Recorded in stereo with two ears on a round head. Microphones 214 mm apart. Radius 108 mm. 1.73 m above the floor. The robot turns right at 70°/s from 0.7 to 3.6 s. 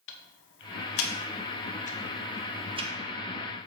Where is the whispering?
No whispering in this recording.